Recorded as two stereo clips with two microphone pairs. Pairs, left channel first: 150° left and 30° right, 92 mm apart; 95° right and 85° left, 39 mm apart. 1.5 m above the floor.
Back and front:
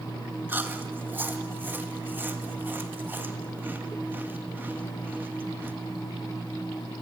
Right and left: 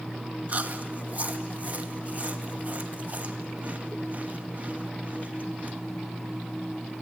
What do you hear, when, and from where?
0.5 s chewing: 35° left, 2 m